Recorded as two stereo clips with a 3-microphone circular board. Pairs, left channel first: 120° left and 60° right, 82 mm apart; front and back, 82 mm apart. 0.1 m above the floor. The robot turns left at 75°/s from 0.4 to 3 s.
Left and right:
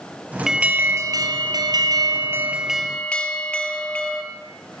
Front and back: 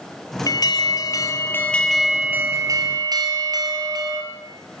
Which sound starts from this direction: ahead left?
An alarm, at 0.5 s.